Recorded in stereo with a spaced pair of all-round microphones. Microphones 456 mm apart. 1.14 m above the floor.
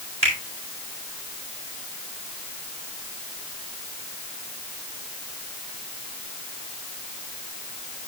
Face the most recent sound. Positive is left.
turn(degrees=-55)  # may be behind; listen again after turning